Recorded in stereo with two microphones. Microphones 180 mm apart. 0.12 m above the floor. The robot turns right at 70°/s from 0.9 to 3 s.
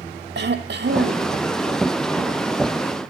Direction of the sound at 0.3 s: 80° right.